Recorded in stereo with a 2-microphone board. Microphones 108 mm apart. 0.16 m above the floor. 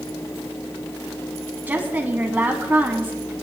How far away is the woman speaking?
About 1.0 m.